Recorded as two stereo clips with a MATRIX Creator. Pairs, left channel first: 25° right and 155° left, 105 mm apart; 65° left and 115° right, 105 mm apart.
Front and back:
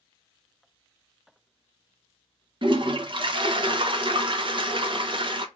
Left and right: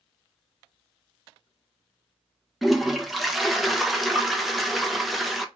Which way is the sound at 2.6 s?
160° left.